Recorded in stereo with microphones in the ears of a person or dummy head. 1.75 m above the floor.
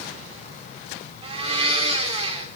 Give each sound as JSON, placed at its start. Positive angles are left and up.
{"t": 1.2, "sound": "a blender", "side_deg": -30, "distance_m": 2.5}